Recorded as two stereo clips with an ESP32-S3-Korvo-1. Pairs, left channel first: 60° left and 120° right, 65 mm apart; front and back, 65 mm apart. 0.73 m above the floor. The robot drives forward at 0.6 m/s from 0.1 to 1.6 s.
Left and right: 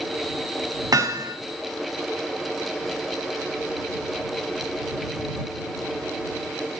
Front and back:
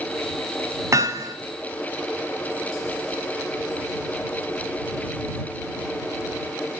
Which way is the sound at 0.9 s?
140° right.